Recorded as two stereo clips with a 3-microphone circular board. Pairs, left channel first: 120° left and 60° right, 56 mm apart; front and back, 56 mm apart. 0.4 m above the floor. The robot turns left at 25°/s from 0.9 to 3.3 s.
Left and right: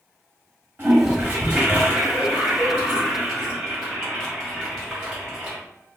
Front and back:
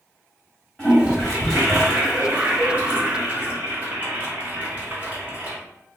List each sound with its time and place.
0.8 s a toilet flushing: 75° right, 1.8 m; by 5.6 s 135° right, 1.8 m